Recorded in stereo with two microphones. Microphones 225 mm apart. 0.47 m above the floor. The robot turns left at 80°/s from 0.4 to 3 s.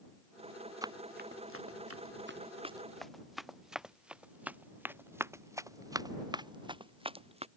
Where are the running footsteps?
15° right (ahead or behind); by 7.5 s 25° right (ahead or behind).